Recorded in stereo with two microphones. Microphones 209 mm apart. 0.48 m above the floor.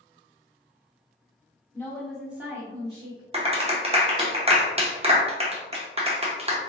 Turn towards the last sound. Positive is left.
turn(degrees=-30)  # may be behind; listen again after turning